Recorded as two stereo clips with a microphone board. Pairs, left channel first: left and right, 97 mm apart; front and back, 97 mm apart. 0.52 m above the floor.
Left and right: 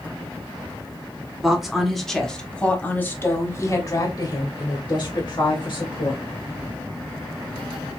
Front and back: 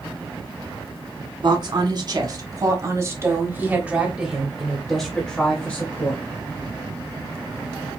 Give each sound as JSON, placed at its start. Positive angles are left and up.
{"t": 1.4, "sound": "a woman speaking", "azimuth_deg": -170, "distance_m": 1.7}